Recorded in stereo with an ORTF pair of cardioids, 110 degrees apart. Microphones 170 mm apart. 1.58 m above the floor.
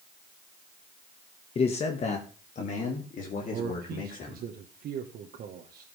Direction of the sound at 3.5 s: 60° right.